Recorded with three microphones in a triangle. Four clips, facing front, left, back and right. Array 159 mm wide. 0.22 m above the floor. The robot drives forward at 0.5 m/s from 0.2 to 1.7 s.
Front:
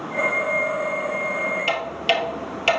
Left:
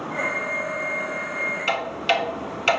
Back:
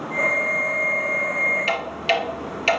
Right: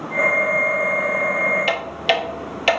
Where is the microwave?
No microwave in this recording.